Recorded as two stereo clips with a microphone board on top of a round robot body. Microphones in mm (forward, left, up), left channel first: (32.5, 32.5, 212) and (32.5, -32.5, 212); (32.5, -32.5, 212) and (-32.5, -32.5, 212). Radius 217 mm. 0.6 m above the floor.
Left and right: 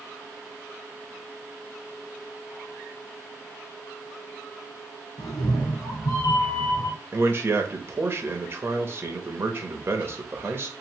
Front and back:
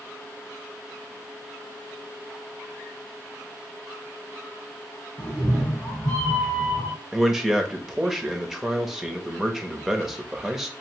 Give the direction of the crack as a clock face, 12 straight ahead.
No crack in this recording.